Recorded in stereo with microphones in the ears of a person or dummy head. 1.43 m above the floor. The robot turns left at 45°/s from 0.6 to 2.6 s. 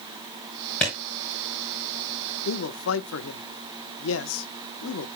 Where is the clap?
Centre (ahead or behind), 7 m; by 0.9 s 5° right (ahead or behind), 7 m.